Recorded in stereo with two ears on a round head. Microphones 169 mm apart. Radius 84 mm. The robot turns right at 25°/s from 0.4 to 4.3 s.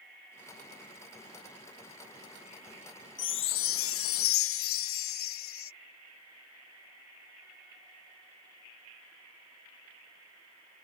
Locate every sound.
3.2 s a chime: 65° left (ahead or behind); by 5.7 s 85° left